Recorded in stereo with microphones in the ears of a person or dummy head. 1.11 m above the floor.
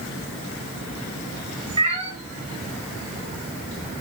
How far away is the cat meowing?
About 1.2 m.